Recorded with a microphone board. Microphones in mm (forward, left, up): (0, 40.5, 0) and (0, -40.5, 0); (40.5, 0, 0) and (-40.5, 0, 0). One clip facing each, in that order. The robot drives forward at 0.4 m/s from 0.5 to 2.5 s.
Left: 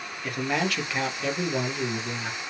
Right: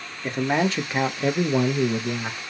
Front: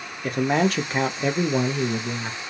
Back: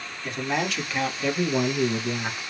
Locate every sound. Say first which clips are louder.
0.2 s a man speaking: right 5 dB, front 6 dB; 30° right, 0.7 m; by 2.4 s 125° right, 0.6 m